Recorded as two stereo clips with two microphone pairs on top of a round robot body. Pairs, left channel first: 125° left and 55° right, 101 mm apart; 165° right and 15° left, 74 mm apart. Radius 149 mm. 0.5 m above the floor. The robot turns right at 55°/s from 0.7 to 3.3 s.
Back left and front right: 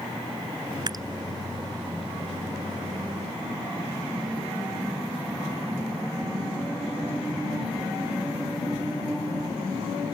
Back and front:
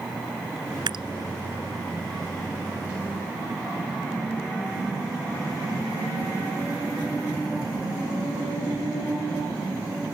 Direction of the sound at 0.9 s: 5° right.